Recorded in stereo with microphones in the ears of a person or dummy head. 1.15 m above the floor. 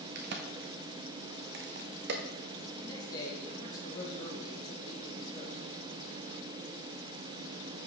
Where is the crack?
55° right (ahead or behind), 0.9 m.